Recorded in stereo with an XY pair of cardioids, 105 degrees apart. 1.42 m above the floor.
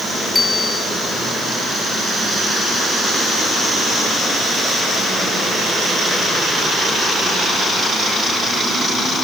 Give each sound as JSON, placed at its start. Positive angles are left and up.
{"t": 0.3, "sound": "a bicycle bell", "azimuth_deg": 15}